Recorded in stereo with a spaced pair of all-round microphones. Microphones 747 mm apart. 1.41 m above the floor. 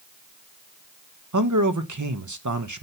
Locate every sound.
1.3 s a man speaking: 25° right (ahead or behind), 1.0 m